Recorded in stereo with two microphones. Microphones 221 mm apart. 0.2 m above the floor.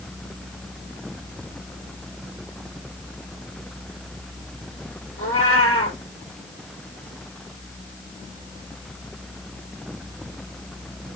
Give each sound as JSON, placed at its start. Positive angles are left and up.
{"t": 5.2, "sound": "a cat meowing", "side_deg": 80, "distance_m": 3.5}